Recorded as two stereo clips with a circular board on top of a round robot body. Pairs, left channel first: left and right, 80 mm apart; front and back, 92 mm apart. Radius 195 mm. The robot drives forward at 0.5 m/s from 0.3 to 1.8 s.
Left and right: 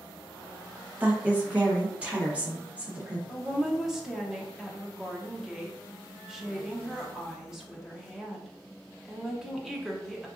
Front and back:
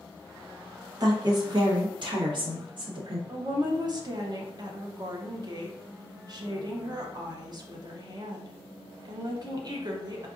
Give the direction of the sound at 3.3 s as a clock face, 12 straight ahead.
6 o'clock.